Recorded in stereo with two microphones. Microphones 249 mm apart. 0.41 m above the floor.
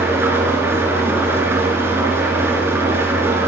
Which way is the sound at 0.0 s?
10° right (ahead or behind).